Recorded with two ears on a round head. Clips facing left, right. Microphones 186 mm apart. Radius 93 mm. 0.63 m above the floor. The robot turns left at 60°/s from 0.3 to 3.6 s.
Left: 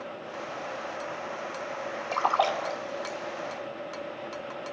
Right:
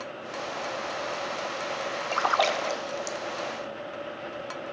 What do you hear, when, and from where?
2.1 s a splash: 5° right (ahead or behind), 0.6 m; by 3.2 s 65° right (ahead or behind), 0.6 m